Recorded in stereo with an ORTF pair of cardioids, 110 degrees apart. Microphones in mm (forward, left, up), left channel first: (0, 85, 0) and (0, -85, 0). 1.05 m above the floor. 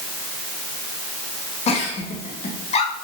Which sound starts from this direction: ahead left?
A giggle, at 1.7 s.